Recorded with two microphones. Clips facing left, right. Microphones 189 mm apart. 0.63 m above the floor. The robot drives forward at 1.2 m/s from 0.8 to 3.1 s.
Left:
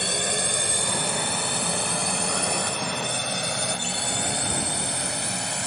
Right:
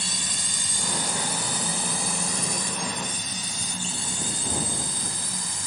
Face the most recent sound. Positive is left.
turn(degrees=70)  # may be behind; listen again after turning